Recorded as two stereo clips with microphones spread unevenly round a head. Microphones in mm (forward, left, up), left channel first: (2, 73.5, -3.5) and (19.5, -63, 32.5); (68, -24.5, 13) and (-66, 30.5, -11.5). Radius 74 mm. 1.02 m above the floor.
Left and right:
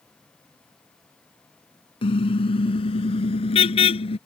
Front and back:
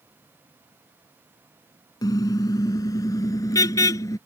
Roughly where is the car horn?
Ahead left.